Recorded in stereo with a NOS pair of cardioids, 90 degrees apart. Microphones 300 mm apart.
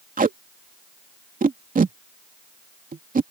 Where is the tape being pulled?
25° right.